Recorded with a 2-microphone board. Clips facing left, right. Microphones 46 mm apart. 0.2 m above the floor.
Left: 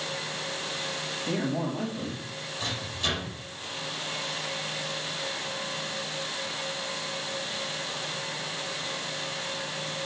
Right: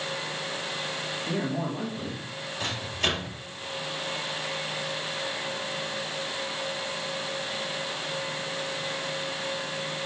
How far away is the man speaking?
About 4 m.